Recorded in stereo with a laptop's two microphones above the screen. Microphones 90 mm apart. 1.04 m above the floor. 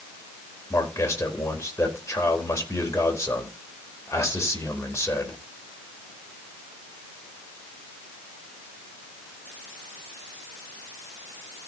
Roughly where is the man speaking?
Left.